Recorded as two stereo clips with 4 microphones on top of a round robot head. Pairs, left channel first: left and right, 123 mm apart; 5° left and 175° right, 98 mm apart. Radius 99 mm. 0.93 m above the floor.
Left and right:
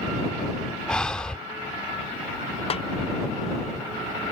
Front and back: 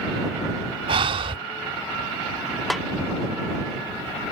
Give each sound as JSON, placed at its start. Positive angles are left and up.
{"t": 0.9, "sound": "breathing", "azimuth_deg": 175}
{"t": 2.7, "sound": "a snare drum", "azimuth_deg": 95}